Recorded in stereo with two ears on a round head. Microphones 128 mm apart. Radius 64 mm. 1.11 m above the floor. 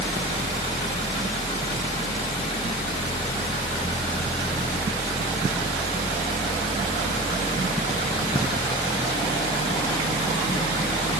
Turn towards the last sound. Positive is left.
No sound to turn to.